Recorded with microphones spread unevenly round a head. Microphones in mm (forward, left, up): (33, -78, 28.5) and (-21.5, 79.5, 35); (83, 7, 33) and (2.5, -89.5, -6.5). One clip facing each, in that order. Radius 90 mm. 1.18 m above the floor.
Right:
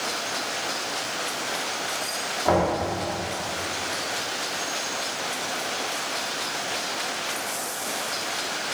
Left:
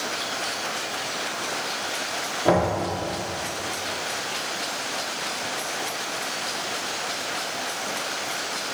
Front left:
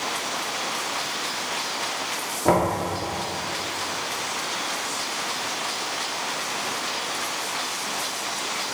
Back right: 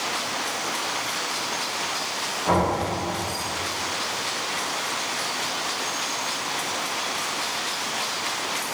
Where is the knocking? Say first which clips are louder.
Left 1 dB, front left 2 dB; 50° left, 2.5 m.